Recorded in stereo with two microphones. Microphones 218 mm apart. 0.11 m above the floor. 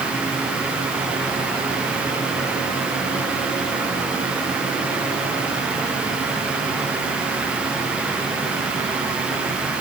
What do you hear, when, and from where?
Only background noise.